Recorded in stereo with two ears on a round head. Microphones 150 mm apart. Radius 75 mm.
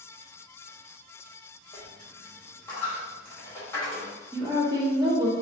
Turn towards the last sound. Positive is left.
turn(degrees=-25)  # may be behind; listen again after turning